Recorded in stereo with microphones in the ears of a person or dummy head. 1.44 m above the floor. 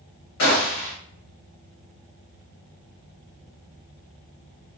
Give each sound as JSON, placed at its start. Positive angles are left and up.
{"t": 0.4, "sound": "a gunshot", "side_deg": 45, "distance_m": 1.1}